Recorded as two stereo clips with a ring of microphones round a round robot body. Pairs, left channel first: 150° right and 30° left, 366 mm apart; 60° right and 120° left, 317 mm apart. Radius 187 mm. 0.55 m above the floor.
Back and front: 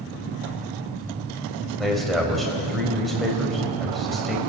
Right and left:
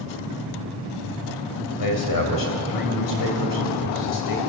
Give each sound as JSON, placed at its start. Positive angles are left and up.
{"t": 1.8, "sound": "a man speaking", "azimuth_deg": -60, "distance_m": 4.0}